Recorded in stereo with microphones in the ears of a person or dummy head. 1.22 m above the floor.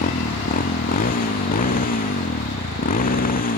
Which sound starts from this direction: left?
A motorcycle, at 0.0 s.